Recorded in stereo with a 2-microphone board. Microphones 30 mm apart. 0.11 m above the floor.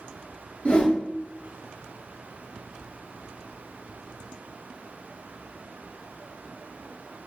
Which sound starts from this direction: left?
A whoosh, at 0.7 s.